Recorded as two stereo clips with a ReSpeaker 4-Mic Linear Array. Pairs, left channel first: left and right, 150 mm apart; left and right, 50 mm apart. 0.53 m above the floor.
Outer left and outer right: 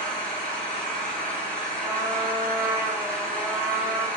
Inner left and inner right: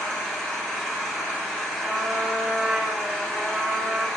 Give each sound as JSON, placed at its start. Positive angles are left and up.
{"t": 0.0, "sound": "an engine running", "side_deg": 10, "distance_m": 1.6}
{"t": 1.8, "sound": "a trumpet", "side_deg": -15, "distance_m": 1.3}